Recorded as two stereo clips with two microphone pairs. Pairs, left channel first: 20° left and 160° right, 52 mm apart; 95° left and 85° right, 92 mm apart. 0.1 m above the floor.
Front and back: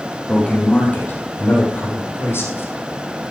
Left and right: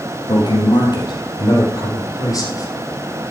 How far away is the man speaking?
About 3.5 m.